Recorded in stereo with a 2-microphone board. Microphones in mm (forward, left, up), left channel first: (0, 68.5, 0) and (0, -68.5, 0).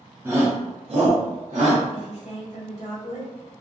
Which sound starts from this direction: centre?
A shout, at 0.2 s.